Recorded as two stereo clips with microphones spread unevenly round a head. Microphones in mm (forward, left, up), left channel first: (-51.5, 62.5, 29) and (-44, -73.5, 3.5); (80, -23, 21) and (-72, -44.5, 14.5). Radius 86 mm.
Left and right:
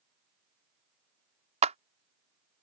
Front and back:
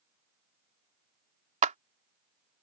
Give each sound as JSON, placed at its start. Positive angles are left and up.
{"t": 1.6, "sound": "a clap", "azimuth_deg": -130}